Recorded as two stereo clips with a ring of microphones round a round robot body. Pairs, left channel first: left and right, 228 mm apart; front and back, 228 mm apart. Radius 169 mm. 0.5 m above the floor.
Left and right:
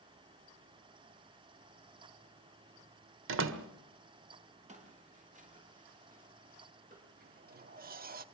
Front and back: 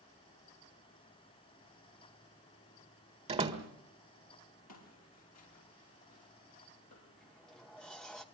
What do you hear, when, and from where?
3.3 s a door slam: 115° right, 1.7 m
4.7 s footsteps: 30° right, 6.5 m; by 7.1 s 40° right, 8 m
7.2 s a sliding door: 85° right, 1.0 m